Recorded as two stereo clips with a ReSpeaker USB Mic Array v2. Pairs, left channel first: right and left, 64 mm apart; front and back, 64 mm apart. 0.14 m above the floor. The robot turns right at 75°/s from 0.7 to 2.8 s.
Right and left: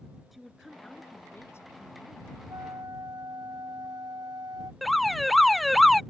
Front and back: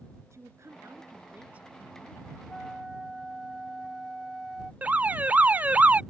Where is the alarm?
Straight behind.